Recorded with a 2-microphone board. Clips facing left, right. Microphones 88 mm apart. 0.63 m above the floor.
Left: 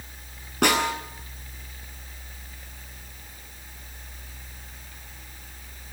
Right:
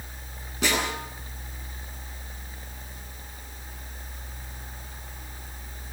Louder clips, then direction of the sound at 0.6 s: Left 5 dB; 65° left (ahead or behind).